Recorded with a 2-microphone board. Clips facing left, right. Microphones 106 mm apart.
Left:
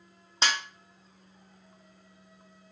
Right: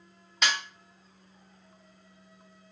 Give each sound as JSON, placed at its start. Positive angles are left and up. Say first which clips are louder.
{"t": 0.4, "sound": "a snare drum", "louder": "even", "side_deg": 30, "distance_m": 0.7}